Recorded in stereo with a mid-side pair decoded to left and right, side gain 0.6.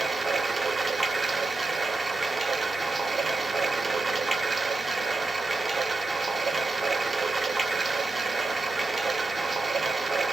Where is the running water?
15° right, 1.0 m.